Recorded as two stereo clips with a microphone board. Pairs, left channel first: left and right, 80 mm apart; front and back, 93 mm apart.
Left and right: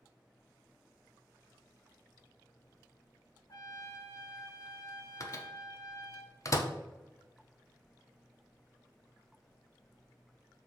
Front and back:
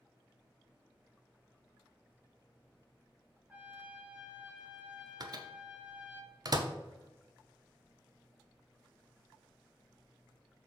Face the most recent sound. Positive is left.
turn(degrees=135)